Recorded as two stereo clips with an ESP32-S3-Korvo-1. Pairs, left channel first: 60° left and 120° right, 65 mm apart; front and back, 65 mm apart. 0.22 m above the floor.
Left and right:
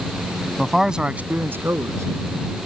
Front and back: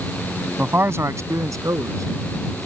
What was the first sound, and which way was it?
A man speaking, 140° left.